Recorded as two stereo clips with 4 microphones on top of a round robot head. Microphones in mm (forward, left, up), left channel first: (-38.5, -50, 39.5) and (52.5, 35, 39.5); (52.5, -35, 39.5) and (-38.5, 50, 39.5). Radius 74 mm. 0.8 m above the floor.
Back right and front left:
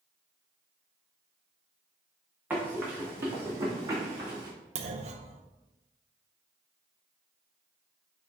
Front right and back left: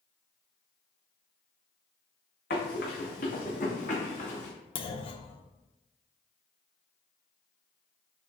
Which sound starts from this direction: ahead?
A clunk, at 4.8 s.